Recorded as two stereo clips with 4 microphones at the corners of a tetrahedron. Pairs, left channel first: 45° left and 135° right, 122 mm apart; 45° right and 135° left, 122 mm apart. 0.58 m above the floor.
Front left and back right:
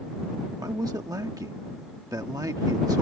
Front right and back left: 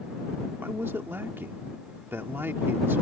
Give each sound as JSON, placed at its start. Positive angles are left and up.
{"t": 0.6, "sound": "a man speaking", "azimuth_deg": -170}